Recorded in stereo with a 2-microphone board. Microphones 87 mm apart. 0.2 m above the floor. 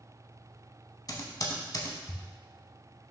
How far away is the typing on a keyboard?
About 0.7 m.